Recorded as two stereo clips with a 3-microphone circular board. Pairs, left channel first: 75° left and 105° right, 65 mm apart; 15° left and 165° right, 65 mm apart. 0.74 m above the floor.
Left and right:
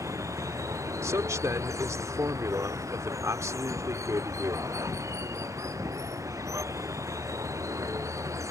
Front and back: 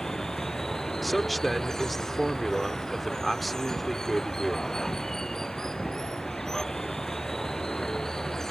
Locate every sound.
0.0 s running water: 70° right
1.0 s a man speaking: 75° right